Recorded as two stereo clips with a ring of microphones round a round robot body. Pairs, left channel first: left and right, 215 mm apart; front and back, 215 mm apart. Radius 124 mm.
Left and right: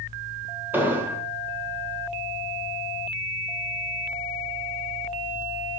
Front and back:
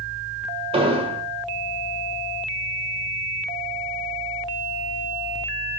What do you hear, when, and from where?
0.7 s an explosion: 160° right, 0.8 m